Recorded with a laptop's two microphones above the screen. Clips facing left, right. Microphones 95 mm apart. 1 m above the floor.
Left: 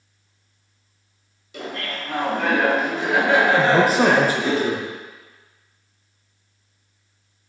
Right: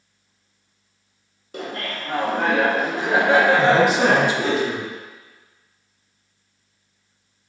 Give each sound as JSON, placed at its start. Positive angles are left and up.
{"t": 1.5, "sound": "laughter", "side_deg": -45, "distance_m": 1.3}
{"t": 3.6, "sound": "a man speaking", "side_deg": 40, "distance_m": 0.8}